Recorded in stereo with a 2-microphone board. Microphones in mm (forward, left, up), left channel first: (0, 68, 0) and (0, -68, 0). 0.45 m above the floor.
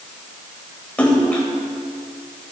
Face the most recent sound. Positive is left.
turn(degrees=10)  # may be behind; listen again after turning